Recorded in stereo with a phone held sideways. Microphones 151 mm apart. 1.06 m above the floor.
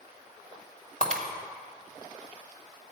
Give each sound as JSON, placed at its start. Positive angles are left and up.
{"t": 1.0, "sound": "breaking glass", "side_deg": -60, "distance_m": 1.4}